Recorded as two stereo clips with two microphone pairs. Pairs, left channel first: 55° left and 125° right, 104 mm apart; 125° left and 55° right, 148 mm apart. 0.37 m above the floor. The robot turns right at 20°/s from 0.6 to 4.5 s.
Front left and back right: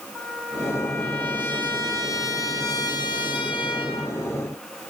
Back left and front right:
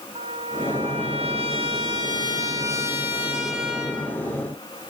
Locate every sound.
0.1 s a trumpet: 30° right, 2 m; by 4.2 s 40° left, 2 m